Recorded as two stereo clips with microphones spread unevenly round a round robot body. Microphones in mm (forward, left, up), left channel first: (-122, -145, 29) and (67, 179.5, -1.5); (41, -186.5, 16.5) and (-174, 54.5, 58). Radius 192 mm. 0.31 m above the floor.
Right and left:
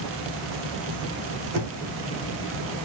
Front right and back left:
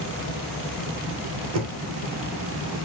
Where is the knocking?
95° left, 1.2 m.